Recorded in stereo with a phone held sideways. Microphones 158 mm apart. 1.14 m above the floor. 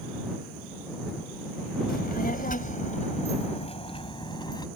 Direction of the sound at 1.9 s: 70° left (ahead or behind).